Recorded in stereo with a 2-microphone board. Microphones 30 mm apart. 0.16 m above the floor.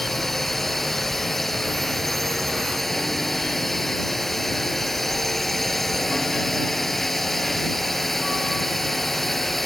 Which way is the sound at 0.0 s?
10° left (ahead or behind).